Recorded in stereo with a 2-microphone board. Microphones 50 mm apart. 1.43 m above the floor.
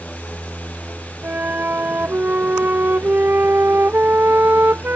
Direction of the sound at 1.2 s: 45° right (ahead or behind).